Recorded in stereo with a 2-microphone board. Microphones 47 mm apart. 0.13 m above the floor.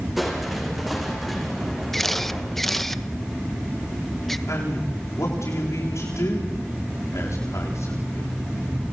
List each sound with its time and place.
0.2 s crushing: centre (ahead or behind), 4.5 m
1.9 s a camera shutter: 5° left (ahead or behind), 1.0 m
4.5 s a man speaking: 80° left, 8.5 m